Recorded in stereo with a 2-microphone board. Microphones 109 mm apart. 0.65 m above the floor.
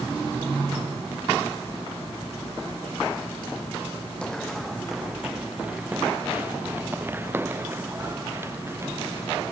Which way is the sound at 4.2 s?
10° left (ahead or behind).